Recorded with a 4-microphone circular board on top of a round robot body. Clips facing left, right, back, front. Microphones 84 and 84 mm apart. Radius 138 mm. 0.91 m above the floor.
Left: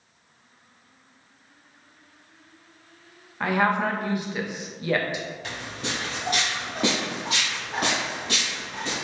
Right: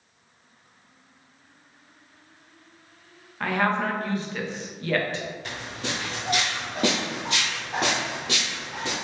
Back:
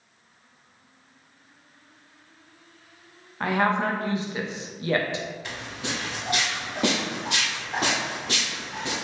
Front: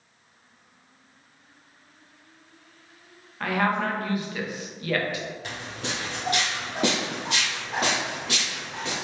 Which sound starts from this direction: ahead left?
Footsteps, at 5.4 s.